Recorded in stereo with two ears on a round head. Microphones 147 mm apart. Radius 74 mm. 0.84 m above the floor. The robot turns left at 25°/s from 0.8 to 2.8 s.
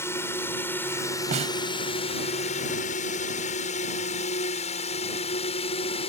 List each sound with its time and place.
0.0 s a drone: 15° left (ahead or behind); by 6.1 s 35° left (ahead or behind)
1.3 s a snare drum: 45° right (ahead or behind); by 1.6 s 40° right (ahead or behind)